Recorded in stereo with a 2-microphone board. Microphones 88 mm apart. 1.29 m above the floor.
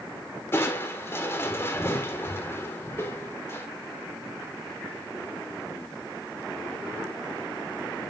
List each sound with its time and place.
0.5 s crushing: 30° left (ahead or behind), 1.5 m